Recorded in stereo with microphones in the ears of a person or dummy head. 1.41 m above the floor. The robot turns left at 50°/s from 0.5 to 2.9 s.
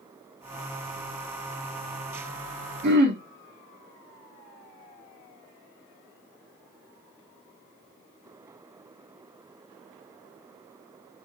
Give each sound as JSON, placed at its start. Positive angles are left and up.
{"t": 2.8, "sound": "throat clearing", "side_deg": -60, "distance_m": 1.8}